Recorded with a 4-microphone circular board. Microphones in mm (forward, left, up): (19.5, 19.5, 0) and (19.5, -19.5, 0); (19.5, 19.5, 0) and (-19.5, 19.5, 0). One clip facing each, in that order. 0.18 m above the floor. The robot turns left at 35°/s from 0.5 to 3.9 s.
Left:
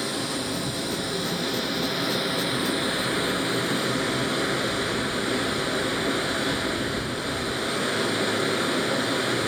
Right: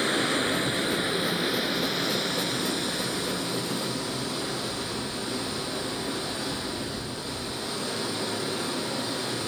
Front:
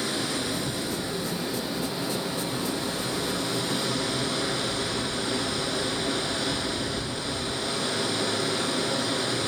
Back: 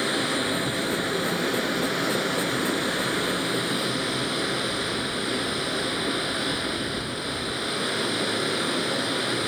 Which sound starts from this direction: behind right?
Running water, at 0.0 s.